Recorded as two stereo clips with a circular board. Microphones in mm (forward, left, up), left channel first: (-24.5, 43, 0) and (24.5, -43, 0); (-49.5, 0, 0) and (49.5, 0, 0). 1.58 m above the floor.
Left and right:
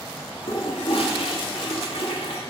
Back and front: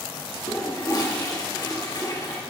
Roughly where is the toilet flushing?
Behind left.